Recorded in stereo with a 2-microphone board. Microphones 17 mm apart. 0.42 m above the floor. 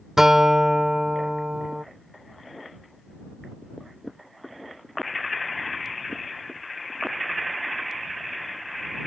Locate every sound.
0.2 s a guitar: 25° right (ahead or behind)